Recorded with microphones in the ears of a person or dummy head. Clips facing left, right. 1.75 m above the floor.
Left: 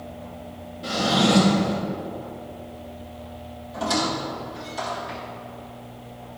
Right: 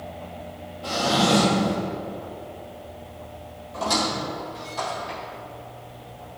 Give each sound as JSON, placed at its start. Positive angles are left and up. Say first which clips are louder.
{"t": 0.8, "sound": "a drawer", "louder": "left 1 dB", "side_deg": 25, "distance_m": 1.8}
{"t": 3.7, "sound": "a squeak", "louder": "left 1 dB", "side_deg": 10, "distance_m": 1.6}